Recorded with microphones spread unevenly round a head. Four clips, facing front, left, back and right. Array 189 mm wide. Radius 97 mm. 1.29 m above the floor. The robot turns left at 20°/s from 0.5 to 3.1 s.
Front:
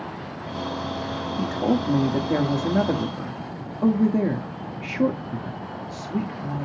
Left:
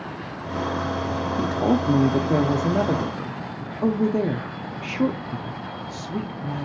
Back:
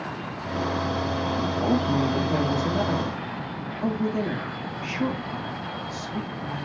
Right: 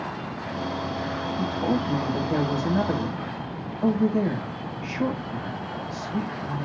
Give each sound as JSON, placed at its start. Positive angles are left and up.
{"t": 1.4, "sound": "a woman speaking", "azimuth_deg": 75, "distance_m": 0.7}